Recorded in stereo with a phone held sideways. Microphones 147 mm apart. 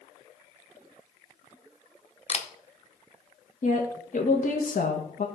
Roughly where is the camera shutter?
Left.